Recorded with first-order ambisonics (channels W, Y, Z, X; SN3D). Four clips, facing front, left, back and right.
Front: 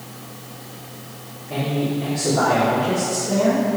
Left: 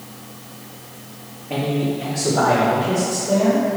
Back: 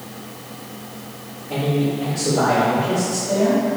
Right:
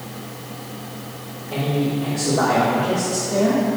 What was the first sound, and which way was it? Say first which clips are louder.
A man speaking: even, back 2 dB; 95° left.